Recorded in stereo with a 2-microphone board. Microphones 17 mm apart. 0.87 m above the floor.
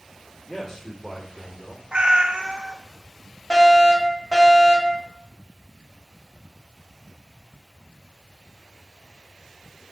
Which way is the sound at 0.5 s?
25° left (ahead or behind).